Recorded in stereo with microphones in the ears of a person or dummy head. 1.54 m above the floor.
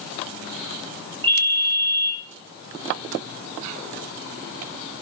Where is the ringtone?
25° right (ahead or behind), 6 m.